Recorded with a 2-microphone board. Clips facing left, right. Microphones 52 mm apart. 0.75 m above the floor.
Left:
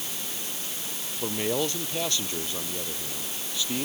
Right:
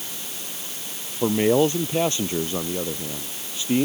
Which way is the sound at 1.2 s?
25° right (ahead or behind).